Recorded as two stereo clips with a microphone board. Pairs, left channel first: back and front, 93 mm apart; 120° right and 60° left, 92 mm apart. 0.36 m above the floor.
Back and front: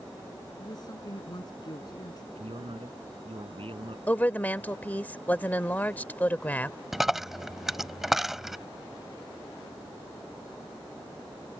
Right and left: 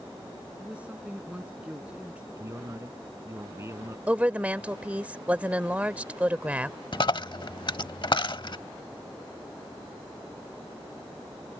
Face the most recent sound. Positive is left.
turn(degrees=-85)